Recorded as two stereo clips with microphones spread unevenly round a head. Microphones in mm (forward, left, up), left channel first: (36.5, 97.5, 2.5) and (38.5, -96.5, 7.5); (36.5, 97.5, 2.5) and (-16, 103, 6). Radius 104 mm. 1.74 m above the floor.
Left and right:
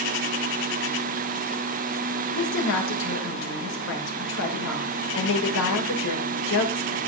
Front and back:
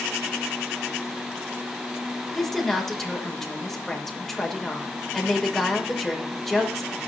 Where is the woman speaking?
80° left, 6 m.